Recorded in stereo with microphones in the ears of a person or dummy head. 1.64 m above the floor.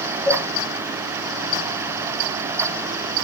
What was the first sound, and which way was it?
A cowbell, 10° left (ahead or behind).